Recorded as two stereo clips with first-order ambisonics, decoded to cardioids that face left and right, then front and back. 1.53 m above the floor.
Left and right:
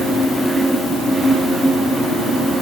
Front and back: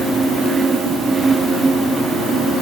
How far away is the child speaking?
I don't hear a child speaking.